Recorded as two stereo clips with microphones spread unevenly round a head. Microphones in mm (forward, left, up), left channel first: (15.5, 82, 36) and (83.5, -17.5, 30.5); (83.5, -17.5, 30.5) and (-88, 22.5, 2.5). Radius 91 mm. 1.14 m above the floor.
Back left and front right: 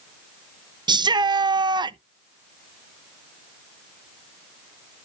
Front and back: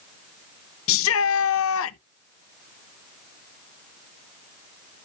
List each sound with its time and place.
0.9 s a shout: straight ahead, 0.7 m